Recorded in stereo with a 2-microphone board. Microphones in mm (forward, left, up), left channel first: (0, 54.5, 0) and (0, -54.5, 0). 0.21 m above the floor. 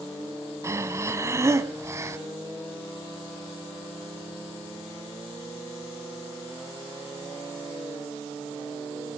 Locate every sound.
0.6 s breathing: 25° right (ahead or behind), 1.2 m